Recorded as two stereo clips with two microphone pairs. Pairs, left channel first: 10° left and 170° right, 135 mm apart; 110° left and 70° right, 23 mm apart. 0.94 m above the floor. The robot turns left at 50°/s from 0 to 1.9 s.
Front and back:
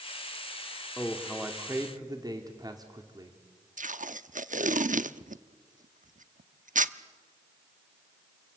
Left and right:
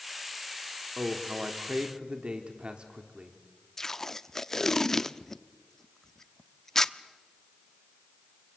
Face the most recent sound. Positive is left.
turn(degrees=180)